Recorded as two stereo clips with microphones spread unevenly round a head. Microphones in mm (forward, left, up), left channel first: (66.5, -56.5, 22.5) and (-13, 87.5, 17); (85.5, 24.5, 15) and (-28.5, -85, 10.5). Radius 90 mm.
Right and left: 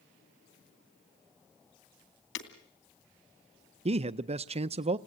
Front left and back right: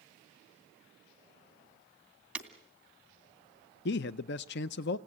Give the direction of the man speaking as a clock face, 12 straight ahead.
10 o'clock.